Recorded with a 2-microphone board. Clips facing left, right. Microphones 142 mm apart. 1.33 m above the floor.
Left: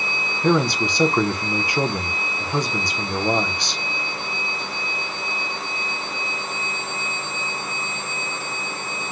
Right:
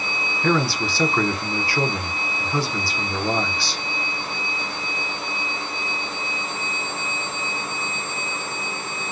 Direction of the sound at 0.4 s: 20° left (ahead or behind).